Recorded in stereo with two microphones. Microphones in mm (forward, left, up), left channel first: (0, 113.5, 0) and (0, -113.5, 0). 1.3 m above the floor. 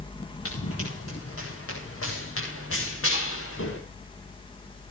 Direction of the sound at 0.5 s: 80° left.